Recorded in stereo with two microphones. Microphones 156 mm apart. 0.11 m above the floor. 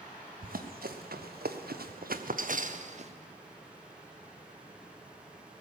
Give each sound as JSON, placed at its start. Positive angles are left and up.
{"t": 0.4, "sound": "running footsteps", "side_deg": -70, "distance_m": 1.4}